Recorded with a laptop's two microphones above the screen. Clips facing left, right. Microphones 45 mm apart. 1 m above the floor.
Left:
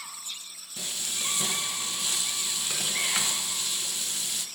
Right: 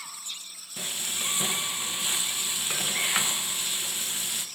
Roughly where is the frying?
Right.